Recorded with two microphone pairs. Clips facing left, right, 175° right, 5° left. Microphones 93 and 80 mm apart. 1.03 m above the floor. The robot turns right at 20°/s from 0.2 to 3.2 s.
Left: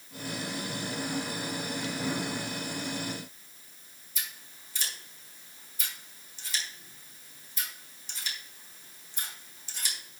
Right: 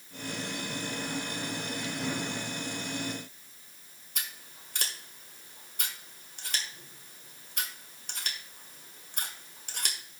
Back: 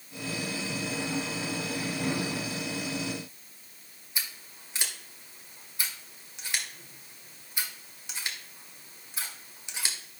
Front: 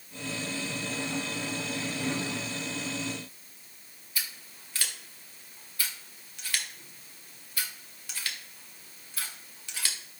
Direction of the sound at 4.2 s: 110° right.